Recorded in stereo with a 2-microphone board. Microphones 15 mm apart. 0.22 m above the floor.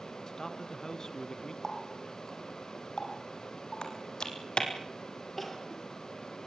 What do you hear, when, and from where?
0.3 s a man speaking: 35° left (ahead or behind), 2.5 m; by 1.5 s 50° left (ahead or behind), 2.5 m
1.6 s a running tap: 35° left (ahead or behind), 6.5 m
3.8 s typing on a keyboard: 75° left (ahead or behind), 4.5 m
5.4 s crying: 15° left (ahead or behind), 5 m